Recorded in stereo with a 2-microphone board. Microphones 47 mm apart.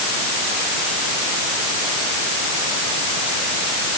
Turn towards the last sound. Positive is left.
No sound to turn to.